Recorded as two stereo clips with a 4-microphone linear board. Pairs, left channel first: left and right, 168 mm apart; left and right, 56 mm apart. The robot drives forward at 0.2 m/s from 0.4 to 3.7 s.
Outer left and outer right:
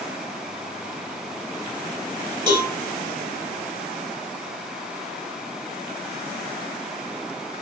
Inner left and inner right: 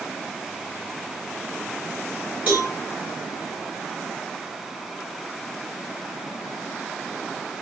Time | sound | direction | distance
2.5 | a cowbell | 20° right (ahead or behind) | 2.5 m